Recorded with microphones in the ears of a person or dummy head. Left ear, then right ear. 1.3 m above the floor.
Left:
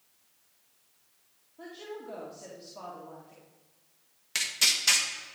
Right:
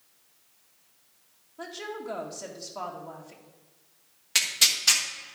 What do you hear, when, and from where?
1.6 s a woman speaking: 45° right (ahead or behind), 1.8 m
4.3 s tearing paper: 10° right (ahead or behind), 1.3 m